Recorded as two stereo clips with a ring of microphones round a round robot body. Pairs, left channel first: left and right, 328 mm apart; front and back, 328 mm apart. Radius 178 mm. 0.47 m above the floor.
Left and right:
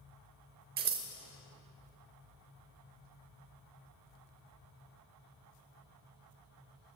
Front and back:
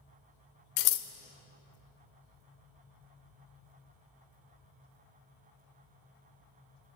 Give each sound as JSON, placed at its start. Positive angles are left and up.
{"t": 0.8, "sound": "scissors", "azimuth_deg": -25, "distance_m": 0.8}